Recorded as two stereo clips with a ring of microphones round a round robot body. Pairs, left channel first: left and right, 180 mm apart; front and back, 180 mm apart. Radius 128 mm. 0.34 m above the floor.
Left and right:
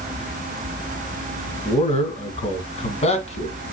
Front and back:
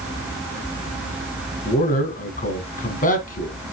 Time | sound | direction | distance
1.6 | a man speaking | 40° left | 3 m